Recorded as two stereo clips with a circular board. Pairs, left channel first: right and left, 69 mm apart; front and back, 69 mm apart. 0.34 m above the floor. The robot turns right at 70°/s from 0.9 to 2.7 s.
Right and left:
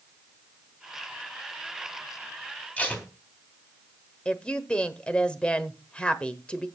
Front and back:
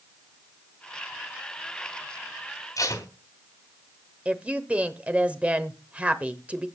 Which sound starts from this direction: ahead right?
Tape being pulled, at 2.8 s.